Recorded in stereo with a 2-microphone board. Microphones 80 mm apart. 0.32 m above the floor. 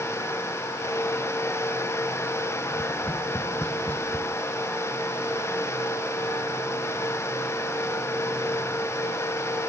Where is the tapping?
20° left (ahead or behind), 1.1 m.